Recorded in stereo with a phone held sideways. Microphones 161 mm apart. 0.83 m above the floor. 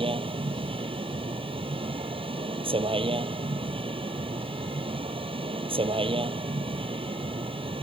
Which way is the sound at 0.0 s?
35° right (ahead or behind).